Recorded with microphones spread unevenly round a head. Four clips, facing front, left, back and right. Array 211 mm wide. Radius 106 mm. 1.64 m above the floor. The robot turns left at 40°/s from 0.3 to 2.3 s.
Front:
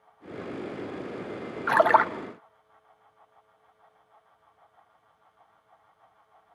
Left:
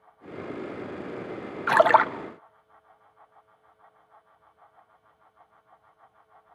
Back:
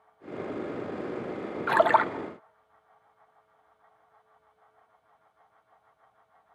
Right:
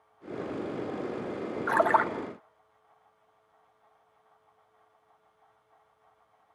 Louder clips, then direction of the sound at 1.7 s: Left 6 dB, front 2 dB; 85° left.